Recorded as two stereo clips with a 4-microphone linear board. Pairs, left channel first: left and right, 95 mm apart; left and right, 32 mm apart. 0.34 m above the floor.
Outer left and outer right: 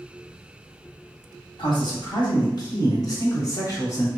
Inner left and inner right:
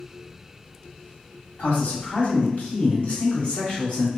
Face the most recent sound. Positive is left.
turn(degrees=35)  # may be behind; listen again after turning